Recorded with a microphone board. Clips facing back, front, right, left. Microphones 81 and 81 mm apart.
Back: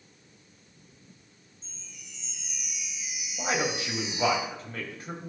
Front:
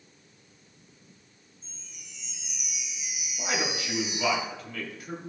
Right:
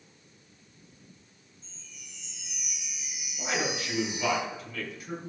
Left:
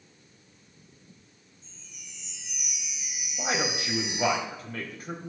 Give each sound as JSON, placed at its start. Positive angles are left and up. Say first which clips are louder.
{"t": 1.6, "sound": "a chime", "louder": "back 2 dB, left 1 dB", "azimuth_deg": 85, "distance_m": 4.0}
{"t": 3.4, "sound": "a man speaking", "louder": "back 2 dB, left 1 dB", "azimuth_deg": 130, "distance_m": 3.5}